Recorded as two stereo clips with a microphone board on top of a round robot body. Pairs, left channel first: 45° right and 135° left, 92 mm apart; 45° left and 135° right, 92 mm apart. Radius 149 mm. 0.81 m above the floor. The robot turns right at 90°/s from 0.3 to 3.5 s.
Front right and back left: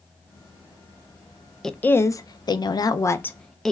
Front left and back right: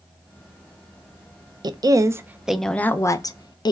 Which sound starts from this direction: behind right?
A woman speaking, at 1.6 s.